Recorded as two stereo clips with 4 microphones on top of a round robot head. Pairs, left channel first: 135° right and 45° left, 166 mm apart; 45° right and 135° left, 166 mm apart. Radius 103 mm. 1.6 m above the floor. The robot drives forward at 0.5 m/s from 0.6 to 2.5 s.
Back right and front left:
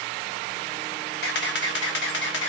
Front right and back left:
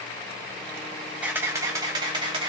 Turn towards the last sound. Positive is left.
turn(degrees=-160)